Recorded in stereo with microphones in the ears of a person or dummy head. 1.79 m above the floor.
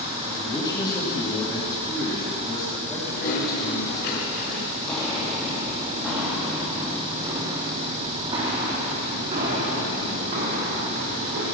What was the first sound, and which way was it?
A man speaking, 20° left (ahead or behind).